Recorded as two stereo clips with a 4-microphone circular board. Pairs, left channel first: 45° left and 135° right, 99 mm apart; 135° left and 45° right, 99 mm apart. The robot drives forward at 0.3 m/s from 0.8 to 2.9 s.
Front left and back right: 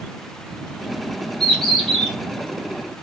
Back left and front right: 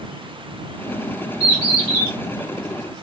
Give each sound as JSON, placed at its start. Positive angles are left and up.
{"t": 1.4, "sound": "a bird", "azimuth_deg": 125, "distance_m": 1.6}